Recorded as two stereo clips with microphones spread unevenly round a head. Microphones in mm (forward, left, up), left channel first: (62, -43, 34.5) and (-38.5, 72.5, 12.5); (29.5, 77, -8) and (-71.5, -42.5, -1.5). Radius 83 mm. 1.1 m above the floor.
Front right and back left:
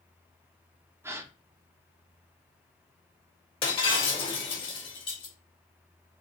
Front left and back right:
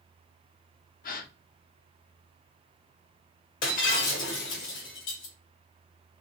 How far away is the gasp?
About 0.8 m.